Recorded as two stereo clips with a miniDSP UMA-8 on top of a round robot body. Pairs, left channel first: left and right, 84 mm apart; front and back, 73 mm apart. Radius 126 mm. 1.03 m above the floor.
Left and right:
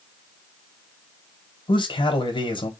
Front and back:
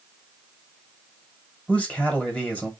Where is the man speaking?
75° left, 1.5 m.